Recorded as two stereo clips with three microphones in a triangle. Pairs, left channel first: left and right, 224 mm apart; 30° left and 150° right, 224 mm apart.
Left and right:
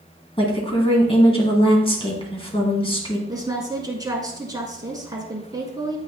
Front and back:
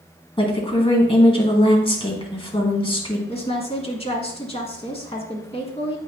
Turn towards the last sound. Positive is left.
turn(degrees=-25)